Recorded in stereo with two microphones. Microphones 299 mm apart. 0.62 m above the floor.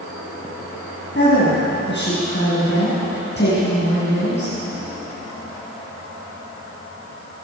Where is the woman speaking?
40° left (ahead or behind), 6 m.